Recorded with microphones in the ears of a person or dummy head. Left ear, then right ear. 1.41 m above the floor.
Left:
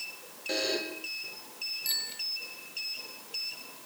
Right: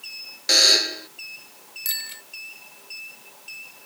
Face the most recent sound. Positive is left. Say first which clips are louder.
# right 4 dB
turn(degrees=-35)  # may be behind; listen again after turning